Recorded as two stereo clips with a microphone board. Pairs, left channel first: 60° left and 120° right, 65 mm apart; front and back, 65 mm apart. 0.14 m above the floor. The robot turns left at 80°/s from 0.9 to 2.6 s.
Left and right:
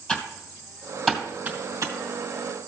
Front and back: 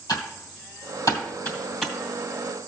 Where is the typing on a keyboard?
10° right, 2.5 m; by 1.9 s 90° right, 2.5 m.